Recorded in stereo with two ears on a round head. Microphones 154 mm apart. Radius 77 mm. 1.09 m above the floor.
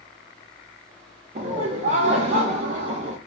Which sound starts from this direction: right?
Laughter, at 1.4 s.